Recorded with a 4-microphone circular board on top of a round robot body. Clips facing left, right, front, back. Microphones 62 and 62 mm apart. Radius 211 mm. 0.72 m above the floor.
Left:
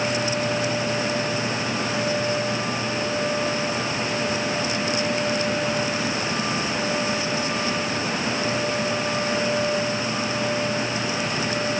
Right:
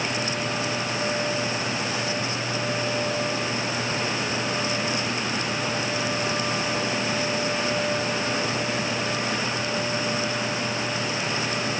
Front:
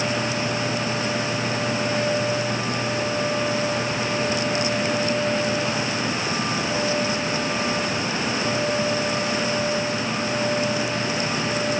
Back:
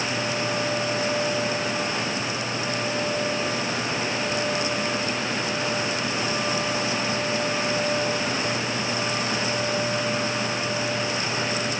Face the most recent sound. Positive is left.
No sound to turn to.